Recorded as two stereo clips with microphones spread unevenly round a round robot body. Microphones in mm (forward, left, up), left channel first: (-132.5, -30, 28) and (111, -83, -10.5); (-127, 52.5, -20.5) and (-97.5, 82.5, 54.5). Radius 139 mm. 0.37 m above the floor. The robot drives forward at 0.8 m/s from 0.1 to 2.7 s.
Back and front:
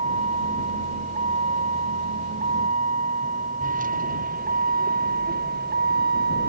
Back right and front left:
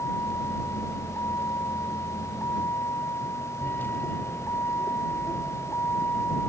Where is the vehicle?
75° right; by 6.5 s 60° right.